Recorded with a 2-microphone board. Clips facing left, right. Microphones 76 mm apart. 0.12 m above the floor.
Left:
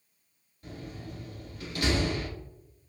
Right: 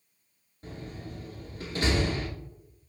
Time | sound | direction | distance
0.6 | a door slam | 30° right (ahead or behind) | 1.2 m